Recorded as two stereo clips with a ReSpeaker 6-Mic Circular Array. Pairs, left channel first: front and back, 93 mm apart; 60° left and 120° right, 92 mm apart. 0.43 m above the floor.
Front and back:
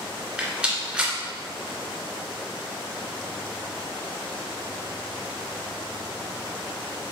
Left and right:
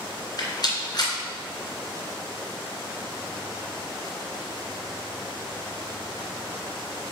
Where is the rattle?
105° left, 2 m.